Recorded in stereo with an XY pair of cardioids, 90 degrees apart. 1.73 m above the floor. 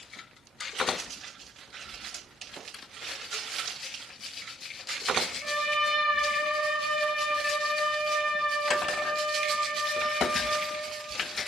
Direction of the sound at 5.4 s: 40° right.